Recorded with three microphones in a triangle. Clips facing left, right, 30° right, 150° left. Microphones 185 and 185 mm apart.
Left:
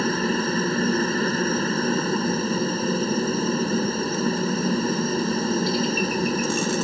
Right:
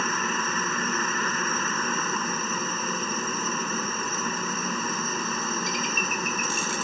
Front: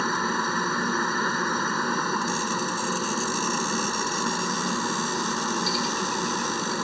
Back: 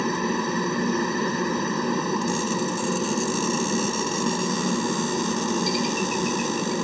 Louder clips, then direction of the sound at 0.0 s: Left 8 dB, back 4 dB; 95° left.